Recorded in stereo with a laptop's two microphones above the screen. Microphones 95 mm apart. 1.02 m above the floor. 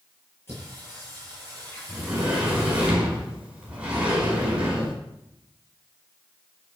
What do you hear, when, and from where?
0.5 s singing: 25° left (ahead or behind), 9 m
1.9 s a sliding door: 10° right (ahead or behind), 5 m